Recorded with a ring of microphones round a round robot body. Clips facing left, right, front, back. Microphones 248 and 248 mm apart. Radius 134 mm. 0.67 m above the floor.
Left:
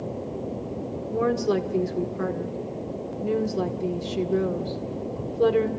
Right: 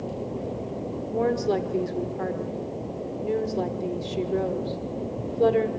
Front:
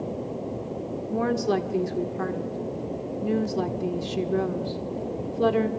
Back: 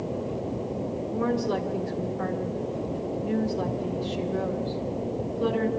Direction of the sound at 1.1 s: 15° left.